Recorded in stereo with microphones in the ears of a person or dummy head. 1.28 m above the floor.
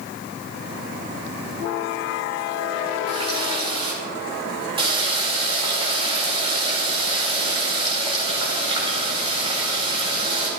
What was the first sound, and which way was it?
A running tap, 25° right (ahead or behind).